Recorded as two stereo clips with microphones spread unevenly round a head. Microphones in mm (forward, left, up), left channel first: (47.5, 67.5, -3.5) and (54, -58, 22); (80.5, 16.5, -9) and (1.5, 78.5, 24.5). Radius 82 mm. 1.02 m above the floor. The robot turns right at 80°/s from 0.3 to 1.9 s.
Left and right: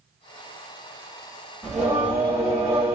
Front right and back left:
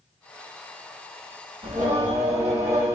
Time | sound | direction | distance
1.6 | singing | straight behind | 1.2 m